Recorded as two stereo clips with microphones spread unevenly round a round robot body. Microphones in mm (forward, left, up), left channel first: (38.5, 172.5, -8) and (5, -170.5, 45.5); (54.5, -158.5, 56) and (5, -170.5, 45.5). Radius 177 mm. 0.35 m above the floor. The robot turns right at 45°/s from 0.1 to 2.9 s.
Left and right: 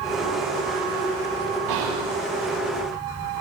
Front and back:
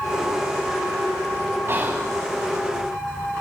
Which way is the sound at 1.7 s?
135° right.